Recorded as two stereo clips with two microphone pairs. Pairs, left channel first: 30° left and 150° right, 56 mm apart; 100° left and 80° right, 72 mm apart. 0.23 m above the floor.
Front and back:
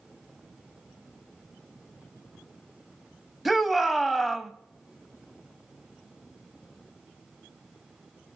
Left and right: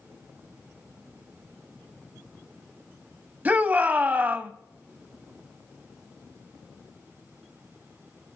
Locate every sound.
3.5 s a shout: 65° right, 1.0 m